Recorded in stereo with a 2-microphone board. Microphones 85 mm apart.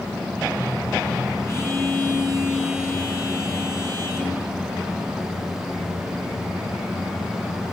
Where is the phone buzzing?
35° left (ahead or behind), 7 m.